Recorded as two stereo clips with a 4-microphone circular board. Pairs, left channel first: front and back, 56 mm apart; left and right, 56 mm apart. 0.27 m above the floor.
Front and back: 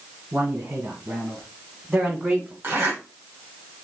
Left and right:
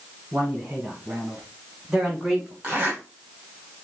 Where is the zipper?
150° right, 2 m.